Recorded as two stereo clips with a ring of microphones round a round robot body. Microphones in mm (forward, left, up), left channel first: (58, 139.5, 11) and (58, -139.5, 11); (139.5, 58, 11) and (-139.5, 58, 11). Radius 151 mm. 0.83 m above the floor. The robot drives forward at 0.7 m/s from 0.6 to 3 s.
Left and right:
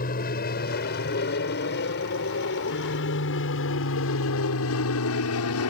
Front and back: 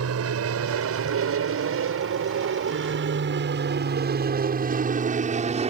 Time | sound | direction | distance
0.0 | an aircraft | 150° left | ?